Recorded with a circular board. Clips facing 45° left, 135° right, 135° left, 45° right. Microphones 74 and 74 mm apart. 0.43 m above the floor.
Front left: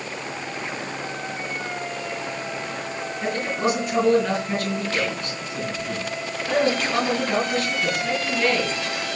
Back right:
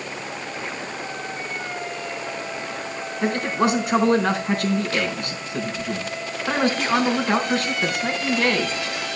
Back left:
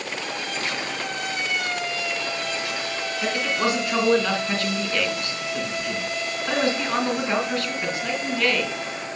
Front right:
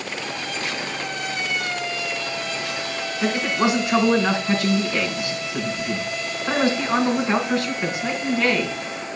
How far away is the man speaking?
About 4 m.